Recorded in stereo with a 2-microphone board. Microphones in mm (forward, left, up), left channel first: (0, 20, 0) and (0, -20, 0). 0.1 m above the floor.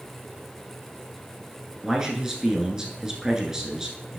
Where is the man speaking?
15° right (ahead or behind), 1.4 m.